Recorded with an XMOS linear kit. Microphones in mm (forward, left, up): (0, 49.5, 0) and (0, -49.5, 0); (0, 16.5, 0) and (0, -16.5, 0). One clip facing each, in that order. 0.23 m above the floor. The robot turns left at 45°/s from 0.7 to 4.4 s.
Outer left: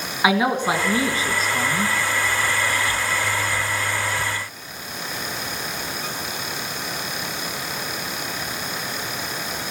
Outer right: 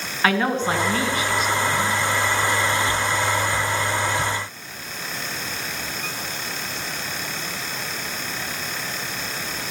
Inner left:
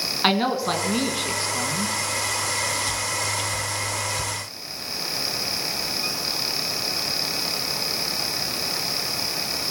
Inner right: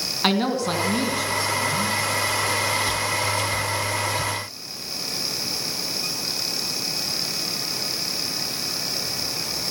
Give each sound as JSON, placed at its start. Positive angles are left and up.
{"t": 0.2, "sound": "a man speaking", "azimuth_deg": 165, "distance_m": 1.9}